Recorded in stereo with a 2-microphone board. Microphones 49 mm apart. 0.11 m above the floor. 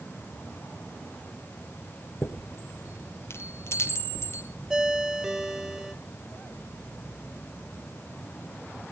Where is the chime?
60° left (ahead or behind), 3 m.